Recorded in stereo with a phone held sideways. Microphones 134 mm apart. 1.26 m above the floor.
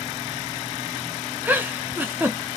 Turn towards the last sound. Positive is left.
turn(degrees=-15)  # may be behind; listen again after turning